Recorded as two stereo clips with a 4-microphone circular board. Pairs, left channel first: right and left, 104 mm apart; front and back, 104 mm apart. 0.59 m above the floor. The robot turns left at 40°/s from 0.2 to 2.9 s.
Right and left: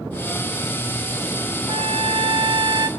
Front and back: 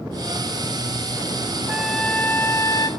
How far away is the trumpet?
About 0.9 m.